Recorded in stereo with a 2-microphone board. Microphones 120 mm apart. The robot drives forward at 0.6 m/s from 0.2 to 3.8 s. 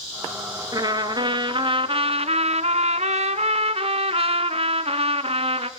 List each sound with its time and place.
0.7 s a trumpet: 30° right (ahead or behind), 1.7 m; by 5.7 s 50° right (ahead or behind), 1.1 m